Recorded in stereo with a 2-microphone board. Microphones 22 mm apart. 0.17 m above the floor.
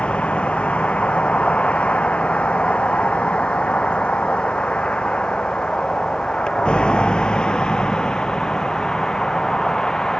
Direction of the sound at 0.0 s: 75° left (ahead or behind).